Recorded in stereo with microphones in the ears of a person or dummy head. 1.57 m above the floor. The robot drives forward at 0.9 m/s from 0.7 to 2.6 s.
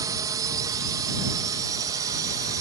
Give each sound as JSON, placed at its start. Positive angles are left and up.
{"t": 0.0, "sound": "a drone", "side_deg": -25}